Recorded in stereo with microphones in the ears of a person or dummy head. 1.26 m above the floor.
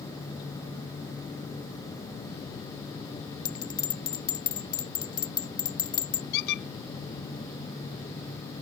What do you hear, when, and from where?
3.5 s a bell: 30° left (ahead or behind)
6.3 s a squeak: 65° left (ahead or behind)